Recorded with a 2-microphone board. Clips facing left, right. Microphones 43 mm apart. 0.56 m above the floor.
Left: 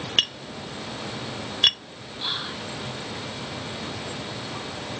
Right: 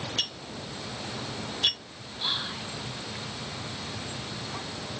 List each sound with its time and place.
0.2 s tapping: 70° left (ahead or behind), 0.8 m
2.2 s whispering: 5° left (ahead or behind), 0.8 m